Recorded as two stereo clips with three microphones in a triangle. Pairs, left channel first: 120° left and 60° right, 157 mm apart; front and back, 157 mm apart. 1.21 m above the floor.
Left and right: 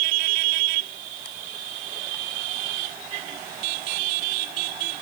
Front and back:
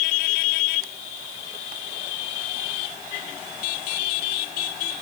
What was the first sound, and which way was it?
Only background noise.